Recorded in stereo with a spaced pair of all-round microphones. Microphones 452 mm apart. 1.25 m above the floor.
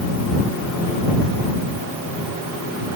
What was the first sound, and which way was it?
Only background noise.